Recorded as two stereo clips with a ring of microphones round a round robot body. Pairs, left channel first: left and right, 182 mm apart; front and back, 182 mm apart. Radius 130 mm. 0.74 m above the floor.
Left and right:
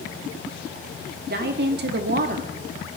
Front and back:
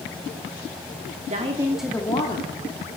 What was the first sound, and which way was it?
A woman speaking, 130° right.